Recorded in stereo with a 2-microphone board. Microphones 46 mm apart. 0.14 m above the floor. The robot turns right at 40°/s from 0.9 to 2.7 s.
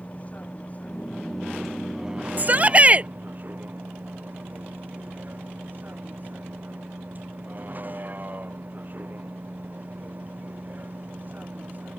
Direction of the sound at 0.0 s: 145° left.